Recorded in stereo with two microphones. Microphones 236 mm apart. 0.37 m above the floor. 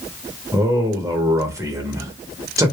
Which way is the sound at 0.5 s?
15° right (ahead or behind).